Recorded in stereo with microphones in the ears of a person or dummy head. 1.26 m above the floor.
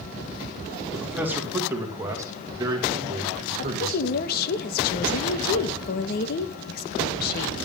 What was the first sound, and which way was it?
A man speaking, 10° right (ahead or behind).